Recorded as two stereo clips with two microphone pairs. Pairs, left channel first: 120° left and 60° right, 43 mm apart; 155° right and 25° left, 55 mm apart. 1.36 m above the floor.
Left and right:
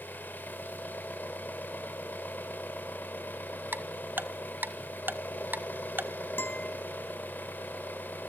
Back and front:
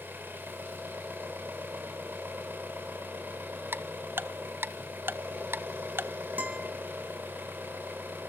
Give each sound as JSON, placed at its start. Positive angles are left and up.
{"t": 0.0, "sound": "an engine running", "azimuth_deg": 80, "distance_m": 4.5}
{"t": 3.7, "sound": "ticking", "azimuth_deg": -20, "distance_m": 1.4}
{"t": 6.4, "sound": "a guitar", "azimuth_deg": 85, "distance_m": 4.5}